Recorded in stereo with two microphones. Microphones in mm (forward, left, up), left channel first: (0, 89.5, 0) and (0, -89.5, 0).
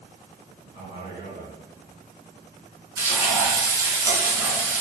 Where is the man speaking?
25° right (ahead or behind), 1.5 m.